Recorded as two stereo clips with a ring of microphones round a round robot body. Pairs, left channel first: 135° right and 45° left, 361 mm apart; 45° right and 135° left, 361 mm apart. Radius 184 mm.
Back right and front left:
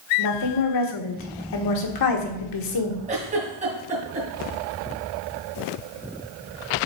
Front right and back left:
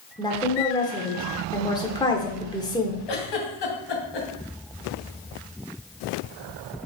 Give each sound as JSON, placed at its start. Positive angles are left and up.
{"t": 0.2, "sound": "a woman speaking", "azimuth_deg": -120, "distance_m": 1.3}
{"t": 3.1, "sound": "a giggle", "azimuth_deg": -25, "distance_m": 2.0}